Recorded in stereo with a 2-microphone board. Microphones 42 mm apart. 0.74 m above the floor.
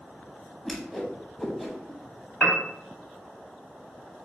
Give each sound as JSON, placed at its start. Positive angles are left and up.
{"t": 0.7, "sound": "a whoosh", "side_deg": 5, "distance_m": 0.9}
{"t": 2.4, "sound": "a piano", "side_deg": 25, "distance_m": 1.1}